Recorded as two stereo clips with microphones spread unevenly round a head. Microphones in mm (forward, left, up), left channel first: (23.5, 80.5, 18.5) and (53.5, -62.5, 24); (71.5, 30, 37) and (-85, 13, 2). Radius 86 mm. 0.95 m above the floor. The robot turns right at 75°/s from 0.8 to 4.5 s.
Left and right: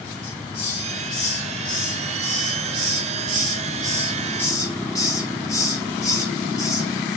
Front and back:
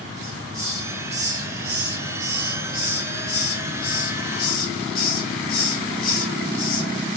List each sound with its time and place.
0.2 s a hiss: 120° left, 2 m; by 6.9 s 35° left, 2 m